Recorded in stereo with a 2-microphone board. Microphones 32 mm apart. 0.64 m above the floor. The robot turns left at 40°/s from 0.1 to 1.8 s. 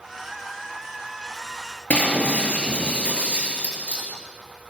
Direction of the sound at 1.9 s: 45° left (ahead or behind).